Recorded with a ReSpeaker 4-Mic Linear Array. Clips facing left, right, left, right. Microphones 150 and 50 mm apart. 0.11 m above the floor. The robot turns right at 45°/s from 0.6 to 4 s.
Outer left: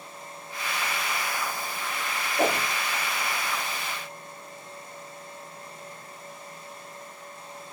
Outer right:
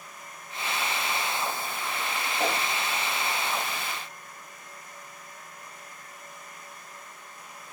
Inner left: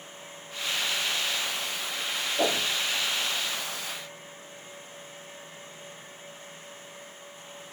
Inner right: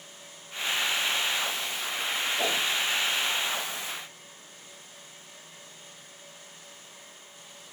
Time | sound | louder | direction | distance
2.4 | a whoosh | outer left 5 dB, inner left 4 dB | 45° left (ahead or behind) | 0.6 m